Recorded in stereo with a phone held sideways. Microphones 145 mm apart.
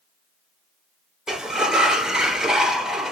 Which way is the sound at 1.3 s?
5° right (ahead or behind).